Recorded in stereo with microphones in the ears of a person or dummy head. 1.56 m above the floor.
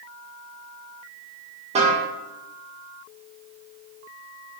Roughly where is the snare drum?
Right.